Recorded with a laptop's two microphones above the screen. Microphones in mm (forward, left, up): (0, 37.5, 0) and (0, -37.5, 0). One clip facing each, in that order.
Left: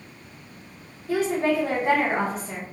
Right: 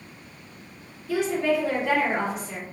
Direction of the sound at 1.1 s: 40° left (ahead or behind).